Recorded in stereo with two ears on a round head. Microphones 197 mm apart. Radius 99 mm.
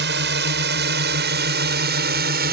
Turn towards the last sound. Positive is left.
turn(degrees=-50)  # may be behind; listen again after turning